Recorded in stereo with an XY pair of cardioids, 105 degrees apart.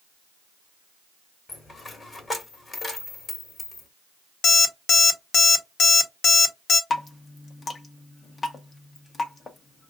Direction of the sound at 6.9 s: 35° left.